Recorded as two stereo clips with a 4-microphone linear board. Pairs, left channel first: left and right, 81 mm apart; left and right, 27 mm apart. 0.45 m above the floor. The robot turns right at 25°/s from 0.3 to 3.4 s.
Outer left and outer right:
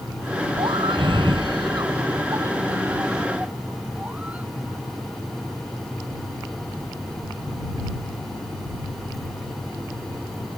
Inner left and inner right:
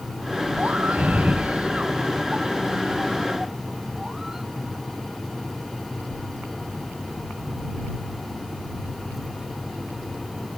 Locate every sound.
0.6 s a scream: 85° right; by 4.5 s 15° right